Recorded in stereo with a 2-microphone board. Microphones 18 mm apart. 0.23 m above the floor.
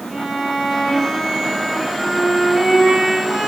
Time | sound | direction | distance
0.1 | a violin | 15° right (ahead or behind) | 2.0 m